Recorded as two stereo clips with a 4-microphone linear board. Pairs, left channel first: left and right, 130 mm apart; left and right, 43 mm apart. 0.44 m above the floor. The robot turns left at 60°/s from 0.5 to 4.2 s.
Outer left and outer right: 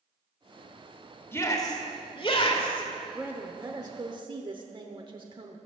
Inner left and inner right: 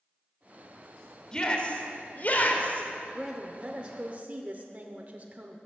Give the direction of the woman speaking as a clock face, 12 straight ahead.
12 o'clock.